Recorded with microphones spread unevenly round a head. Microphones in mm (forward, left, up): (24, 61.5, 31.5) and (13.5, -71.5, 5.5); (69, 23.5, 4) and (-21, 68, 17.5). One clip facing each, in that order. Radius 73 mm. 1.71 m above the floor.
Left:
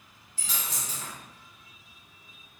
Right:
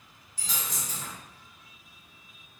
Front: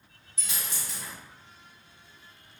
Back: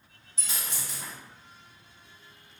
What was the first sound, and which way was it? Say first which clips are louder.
A dropped coin: even, even; straight behind.